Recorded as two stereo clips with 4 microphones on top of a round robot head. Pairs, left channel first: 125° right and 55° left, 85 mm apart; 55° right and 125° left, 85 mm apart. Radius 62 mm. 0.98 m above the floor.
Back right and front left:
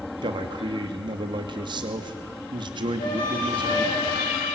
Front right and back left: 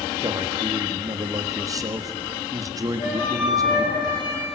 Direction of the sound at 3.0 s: 95° right.